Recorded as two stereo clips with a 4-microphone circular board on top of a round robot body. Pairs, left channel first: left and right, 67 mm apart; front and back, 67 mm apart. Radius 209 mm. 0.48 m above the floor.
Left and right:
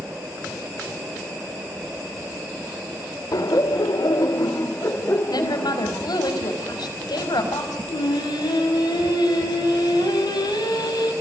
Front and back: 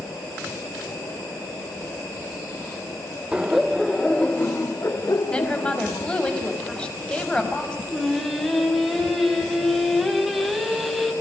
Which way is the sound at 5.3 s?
75° left.